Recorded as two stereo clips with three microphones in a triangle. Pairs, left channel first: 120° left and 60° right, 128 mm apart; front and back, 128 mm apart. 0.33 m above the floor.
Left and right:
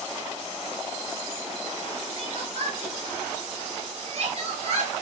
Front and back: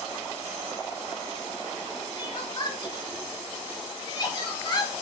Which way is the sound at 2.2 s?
45° right.